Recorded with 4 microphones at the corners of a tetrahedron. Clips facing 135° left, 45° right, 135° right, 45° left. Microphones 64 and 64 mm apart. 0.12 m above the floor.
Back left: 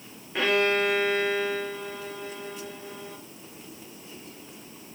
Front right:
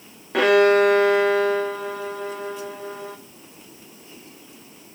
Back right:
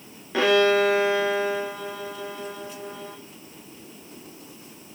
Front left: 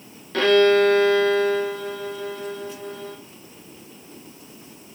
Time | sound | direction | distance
0.3 | a violin | 55° right | 1.4 m